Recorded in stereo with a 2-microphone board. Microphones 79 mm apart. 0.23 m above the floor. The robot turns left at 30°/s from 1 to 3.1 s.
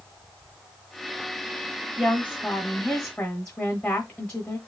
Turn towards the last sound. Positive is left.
turn(degrees=145)